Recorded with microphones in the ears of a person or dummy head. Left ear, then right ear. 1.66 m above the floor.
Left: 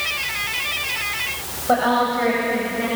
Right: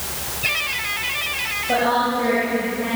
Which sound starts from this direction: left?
A woman speaking, at 1.7 s.